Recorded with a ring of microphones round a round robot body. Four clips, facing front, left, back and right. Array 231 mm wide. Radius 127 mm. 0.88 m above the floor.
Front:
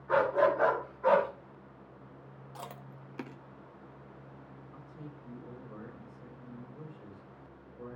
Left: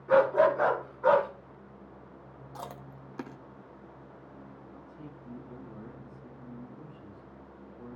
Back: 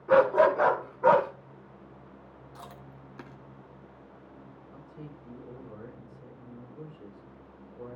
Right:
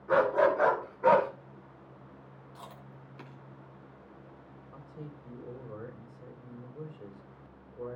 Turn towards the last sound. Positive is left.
turn(degrees=-120)